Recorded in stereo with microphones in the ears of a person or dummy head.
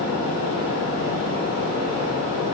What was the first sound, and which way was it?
A fan, 15° right (ahead or behind).